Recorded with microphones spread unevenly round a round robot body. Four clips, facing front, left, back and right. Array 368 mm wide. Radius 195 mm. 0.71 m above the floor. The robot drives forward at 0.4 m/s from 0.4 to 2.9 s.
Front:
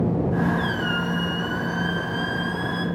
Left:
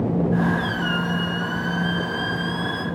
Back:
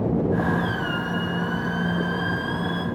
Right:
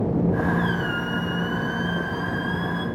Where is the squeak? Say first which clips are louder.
Left 1 dB, front 1 dB; 15° left, 1.1 m; by 2.9 s 70° left, 0.5 m.